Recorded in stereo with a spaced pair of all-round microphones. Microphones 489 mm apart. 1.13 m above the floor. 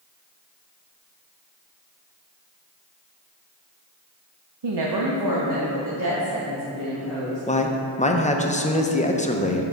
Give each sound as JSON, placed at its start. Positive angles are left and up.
{"t": 4.6, "sound": "a woman speaking", "side_deg": -60, "distance_m": 0.6}
{"t": 7.5, "sound": "a man speaking", "side_deg": 15, "distance_m": 0.6}